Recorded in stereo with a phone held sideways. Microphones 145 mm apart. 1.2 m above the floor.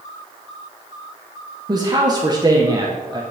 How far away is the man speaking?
About 0.8 m.